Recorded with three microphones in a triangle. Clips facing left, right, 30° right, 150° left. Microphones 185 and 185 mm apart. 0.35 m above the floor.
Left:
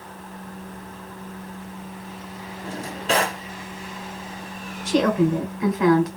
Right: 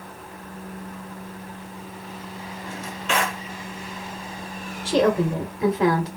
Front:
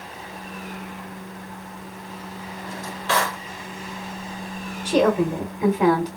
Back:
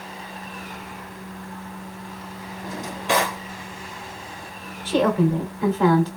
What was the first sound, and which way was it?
A drawer, 90° left.